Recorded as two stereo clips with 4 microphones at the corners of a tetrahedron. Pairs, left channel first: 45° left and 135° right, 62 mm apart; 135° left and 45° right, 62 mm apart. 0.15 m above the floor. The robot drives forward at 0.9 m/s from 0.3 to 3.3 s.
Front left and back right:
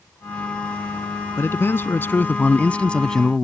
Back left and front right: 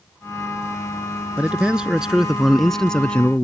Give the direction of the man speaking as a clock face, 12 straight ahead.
11 o'clock.